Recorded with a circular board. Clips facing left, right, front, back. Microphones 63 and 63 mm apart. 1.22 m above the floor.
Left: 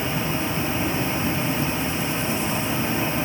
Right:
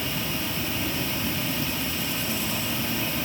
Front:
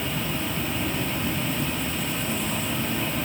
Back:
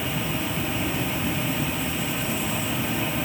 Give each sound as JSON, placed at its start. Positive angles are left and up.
{"t": 0.0, "sound": "an insect", "azimuth_deg": 100, "distance_m": 0.7}